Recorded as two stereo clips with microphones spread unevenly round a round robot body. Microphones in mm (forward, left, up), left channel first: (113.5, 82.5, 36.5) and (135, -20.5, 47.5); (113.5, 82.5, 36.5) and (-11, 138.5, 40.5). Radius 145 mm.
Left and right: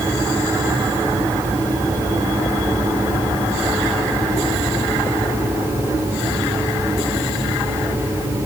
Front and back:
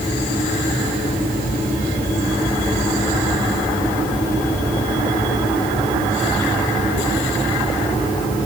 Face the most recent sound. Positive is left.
No sound to turn to.